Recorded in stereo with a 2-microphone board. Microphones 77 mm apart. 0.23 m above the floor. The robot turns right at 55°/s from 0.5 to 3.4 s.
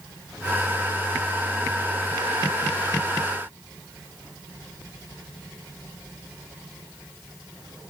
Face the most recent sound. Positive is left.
No sound to turn to.